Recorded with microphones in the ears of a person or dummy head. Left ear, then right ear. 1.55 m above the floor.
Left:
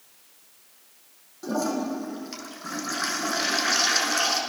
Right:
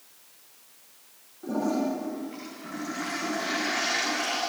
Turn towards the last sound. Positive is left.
turn(degrees=70)  # may be behind; listen again after turning